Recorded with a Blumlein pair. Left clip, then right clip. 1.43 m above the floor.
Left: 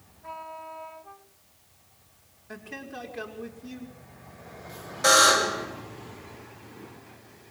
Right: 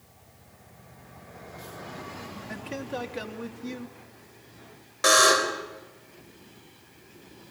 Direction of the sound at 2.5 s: 30° right.